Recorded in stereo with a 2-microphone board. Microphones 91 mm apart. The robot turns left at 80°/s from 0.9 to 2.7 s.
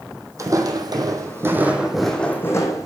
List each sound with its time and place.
0.4 s footsteps: 35° right (ahead or behind), 1.1 m; by 2.9 s 35° left (ahead or behind), 1.5 m